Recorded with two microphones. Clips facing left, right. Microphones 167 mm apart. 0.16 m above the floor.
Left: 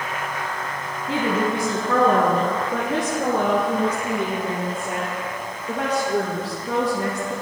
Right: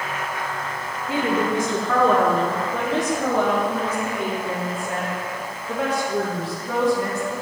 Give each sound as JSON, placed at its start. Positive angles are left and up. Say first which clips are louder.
{"t": 1.1, "sound": "a woman speaking", "louder": "even", "side_deg": 25, "distance_m": 1.3}